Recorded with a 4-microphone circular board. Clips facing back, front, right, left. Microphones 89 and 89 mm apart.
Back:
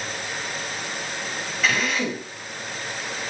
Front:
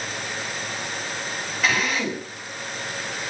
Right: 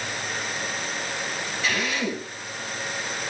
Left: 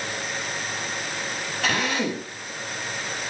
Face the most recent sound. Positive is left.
turn(degrees=90)